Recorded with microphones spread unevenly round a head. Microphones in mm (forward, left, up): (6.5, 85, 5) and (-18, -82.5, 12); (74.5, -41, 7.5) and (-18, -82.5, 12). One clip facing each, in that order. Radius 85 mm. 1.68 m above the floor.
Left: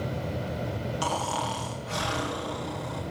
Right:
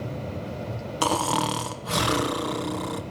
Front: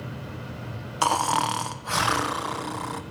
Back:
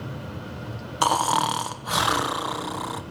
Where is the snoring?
75° right, 1.1 m.